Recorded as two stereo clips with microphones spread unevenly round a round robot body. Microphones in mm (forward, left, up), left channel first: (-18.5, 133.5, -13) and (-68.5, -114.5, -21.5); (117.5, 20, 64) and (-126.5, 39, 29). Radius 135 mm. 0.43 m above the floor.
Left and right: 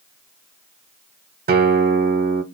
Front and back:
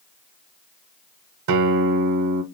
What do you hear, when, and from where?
1.5 s a guitar: 160° right, 0.5 m